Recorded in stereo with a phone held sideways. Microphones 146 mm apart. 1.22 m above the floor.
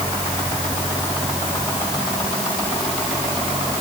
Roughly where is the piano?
No piano in this recording.